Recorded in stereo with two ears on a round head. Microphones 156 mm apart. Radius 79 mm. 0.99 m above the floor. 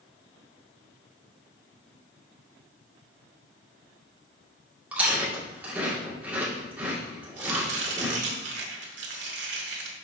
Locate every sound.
4.9 s chewing: 10° right (ahead or behind), 2.5 m
7.4 s chopping: 70° right (ahead or behind), 1.8 m